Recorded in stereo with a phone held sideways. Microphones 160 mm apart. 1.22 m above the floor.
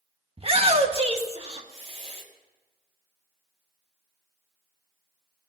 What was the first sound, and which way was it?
A shout, 40° right (ahead or behind).